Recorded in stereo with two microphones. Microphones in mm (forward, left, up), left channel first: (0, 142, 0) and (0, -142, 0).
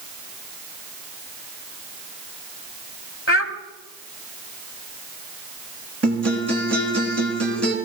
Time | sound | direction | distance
3.3 | a child speaking | 45° left (ahead or behind) | 1.3 m
6.0 | a guitar | 60° right (ahead or behind) | 3 m